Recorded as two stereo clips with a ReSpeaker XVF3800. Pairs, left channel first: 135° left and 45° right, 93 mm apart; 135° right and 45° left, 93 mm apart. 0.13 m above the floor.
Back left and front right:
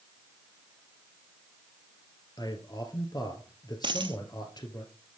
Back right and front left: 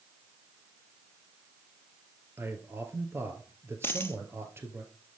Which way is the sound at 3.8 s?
70° right.